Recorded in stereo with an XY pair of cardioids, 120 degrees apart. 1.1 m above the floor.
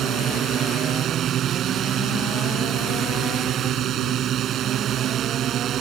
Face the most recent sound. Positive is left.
turn(degrees=-60)